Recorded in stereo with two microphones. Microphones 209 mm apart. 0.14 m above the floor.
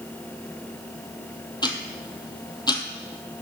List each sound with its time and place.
1.6 s ticking: 20° left (ahead or behind), 0.7 m